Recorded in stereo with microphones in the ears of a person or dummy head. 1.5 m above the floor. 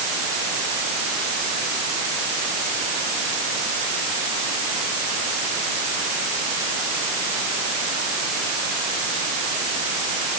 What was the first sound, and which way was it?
Only background noise.